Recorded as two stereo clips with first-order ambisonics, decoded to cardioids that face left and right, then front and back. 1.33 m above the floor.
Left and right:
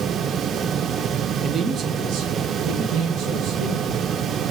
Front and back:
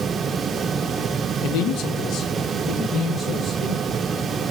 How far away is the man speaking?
About 0.8 m.